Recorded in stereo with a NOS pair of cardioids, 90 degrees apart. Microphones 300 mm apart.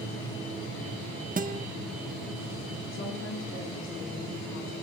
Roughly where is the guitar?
Ahead right.